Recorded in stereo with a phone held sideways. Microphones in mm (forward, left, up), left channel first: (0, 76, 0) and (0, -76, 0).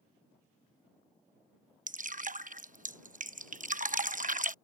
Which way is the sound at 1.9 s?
60° right (ahead or behind).